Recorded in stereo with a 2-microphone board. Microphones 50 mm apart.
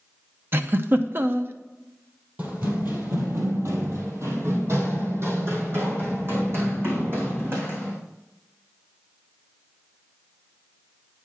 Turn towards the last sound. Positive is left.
turn(degrees=-45)  # may be behind; listen again after turning